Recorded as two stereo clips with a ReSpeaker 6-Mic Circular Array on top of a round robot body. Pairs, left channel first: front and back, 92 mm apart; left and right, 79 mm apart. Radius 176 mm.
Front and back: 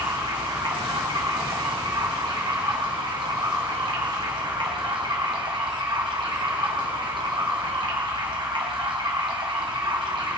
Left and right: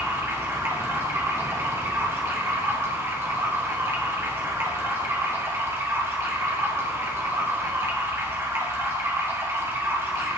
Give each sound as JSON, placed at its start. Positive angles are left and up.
{"t": 0.0, "sound": "running water", "azimuth_deg": -150, "distance_m": 2.0}